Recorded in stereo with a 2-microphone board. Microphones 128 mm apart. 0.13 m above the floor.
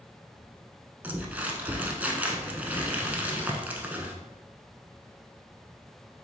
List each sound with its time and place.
1.0 s crumpling: 10° right (ahead or behind), 0.6 m